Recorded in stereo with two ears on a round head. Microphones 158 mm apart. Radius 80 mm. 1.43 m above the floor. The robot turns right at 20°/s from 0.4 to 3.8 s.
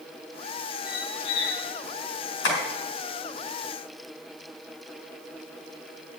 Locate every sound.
0.8 s a squeak: 60° left (ahead or behind), 4 m; by 1.7 s 70° left (ahead or behind), 4 m
2.4 s tapping: 75° left (ahead or behind), 5 m; by 2.6 s 80° left, 5 m